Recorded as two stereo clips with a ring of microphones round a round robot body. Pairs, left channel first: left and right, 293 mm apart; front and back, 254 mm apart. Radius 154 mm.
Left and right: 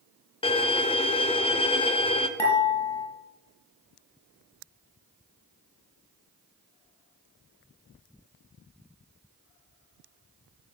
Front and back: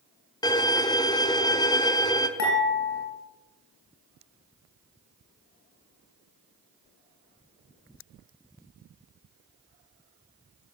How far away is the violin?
About 0.9 m.